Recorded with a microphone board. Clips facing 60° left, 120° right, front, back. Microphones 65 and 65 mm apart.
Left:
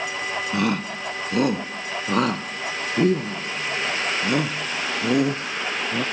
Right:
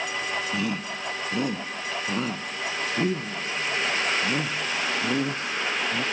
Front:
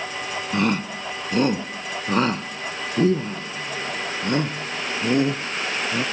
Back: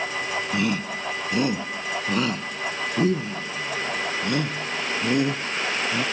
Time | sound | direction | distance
0.5 | a shout | 40° left | ?